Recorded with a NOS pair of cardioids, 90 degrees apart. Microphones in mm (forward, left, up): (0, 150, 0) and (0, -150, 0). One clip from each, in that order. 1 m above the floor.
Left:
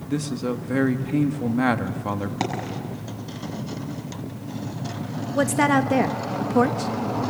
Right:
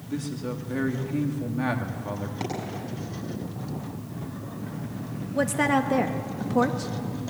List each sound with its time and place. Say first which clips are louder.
0.1 s a man speaking: left 6 dB; 45° left, 1.6 m
2.4 s a dropped coin: left 4 dB; 60° left, 7 m
5.3 s a woman speaking: left 3 dB; 20° left, 0.9 m